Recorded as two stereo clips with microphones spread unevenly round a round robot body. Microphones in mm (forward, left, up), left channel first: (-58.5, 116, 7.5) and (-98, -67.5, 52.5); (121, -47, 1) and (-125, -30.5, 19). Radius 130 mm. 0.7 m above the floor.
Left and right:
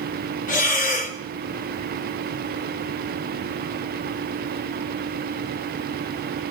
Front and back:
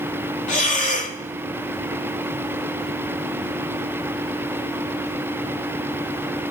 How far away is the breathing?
About 0.9 m.